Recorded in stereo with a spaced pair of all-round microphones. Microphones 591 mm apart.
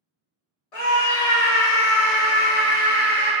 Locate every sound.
0.7 s a scream: 80° left, 1.2 m; by 3.3 s 15° left (ahead or behind), 0.8 m